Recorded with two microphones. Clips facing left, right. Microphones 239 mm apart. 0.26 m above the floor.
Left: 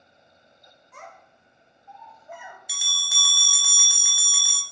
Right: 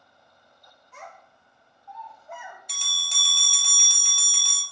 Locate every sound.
0.9 s a child speaking: 50° left (ahead or behind), 0.8 m; by 2.6 s 10° left (ahead or behind), 0.7 m
2.7 s a bell: 10° left (ahead or behind), 0.5 m